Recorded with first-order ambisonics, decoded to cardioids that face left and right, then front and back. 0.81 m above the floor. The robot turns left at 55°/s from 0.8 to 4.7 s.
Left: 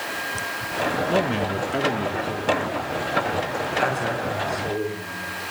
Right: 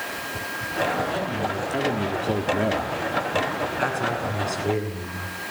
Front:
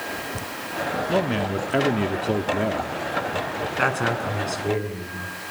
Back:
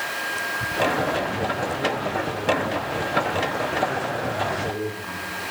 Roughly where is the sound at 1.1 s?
Ahead left.